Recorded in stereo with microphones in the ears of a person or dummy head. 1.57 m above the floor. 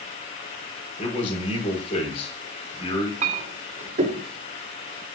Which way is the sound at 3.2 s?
45° right (ahead or behind).